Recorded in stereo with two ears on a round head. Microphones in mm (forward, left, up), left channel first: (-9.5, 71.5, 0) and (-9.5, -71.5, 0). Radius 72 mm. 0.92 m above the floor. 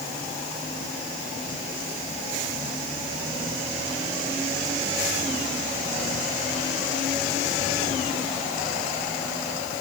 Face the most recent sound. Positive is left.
No sound to turn to.